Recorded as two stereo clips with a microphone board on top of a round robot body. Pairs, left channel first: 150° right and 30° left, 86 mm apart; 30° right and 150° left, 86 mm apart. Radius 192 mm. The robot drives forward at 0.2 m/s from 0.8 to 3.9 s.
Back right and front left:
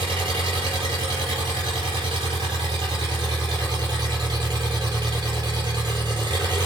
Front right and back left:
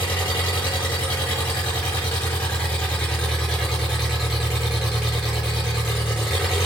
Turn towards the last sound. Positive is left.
turn(degrees=65)